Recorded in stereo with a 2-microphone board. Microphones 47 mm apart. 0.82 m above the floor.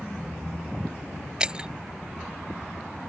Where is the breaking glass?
15° right (ahead or behind).